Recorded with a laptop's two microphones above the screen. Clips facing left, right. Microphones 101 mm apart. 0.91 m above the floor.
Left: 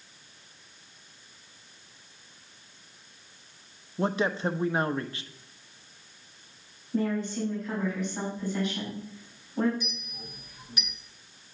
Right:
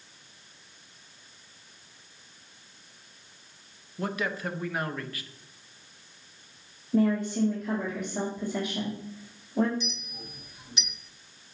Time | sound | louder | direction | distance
4.0 | a man speaking | left 4 dB | 25° left (ahead or behind) | 0.7 m
6.9 | a woman speaking | right 4 dB | 60° right (ahead or behind) | 3 m
9.8 | a clink | right 1 dB | 25° right (ahead or behind) | 1.4 m